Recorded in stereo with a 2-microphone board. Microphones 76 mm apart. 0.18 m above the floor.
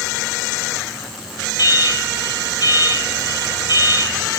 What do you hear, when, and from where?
1.6 s an alarm: 65° left (ahead or behind), 5 m